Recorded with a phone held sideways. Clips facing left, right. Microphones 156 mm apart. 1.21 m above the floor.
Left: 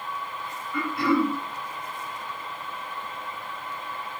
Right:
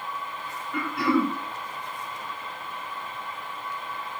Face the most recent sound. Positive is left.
turn(degrees=-70)  # may be behind; listen again after turning